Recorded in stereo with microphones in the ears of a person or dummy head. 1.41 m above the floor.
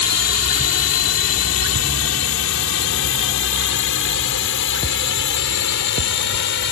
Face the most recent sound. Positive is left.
turn(degrees=65)  # may be behind; listen again after turning